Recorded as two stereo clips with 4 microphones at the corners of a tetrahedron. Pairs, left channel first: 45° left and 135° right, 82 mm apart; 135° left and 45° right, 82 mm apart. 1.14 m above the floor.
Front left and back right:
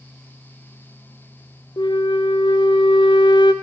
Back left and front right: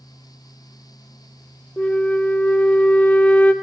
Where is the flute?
60° left, 0.6 m.